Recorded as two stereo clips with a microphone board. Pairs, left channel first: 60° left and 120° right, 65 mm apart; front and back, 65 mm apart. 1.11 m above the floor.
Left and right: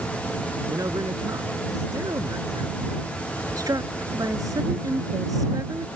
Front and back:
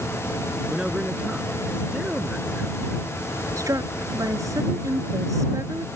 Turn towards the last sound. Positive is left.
turn(degrees=-145)